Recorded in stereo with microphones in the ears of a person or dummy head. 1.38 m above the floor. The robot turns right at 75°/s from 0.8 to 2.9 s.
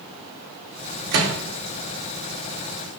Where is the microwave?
50° right (ahead or behind), 0.7 m; by 1.3 s 60° right (ahead or behind), 0.7 m.